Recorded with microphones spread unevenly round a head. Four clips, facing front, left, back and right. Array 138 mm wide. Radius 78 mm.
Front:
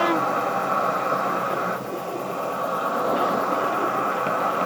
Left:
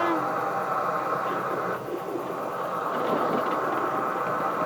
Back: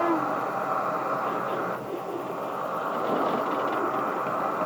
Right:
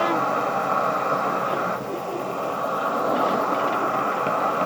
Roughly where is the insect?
Ahead right.